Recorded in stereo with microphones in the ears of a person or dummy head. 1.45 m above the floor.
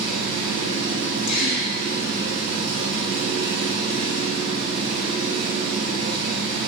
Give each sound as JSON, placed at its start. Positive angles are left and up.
{"t": 0.0, "sound": "an engine running", "side_deg": -35, "distance_m": 2.5}
{"t": 1.3, "sound": "a gasp", "side_deg": 65, "distance_m": 2.5}